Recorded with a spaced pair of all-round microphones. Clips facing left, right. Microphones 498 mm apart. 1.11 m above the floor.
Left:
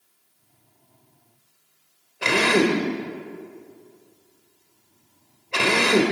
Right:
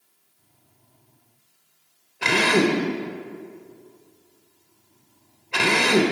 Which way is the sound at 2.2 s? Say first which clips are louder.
Even; 10° right (ahead or behind).